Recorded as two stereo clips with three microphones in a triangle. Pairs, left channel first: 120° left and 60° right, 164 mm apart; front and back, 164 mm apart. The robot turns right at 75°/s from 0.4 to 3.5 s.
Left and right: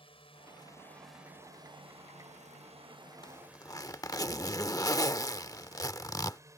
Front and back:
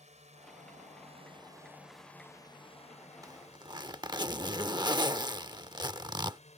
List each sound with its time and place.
0.0 s a drone: 160° left; by 6.6 s straight ahead
3.2 s a zipper: 140° left; by 6.4 s 160° left